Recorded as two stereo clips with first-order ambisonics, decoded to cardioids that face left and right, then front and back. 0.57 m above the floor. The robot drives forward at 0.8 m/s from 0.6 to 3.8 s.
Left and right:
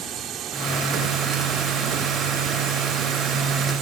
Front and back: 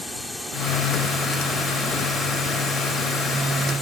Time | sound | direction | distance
0.0 | a drone | 80° right | ?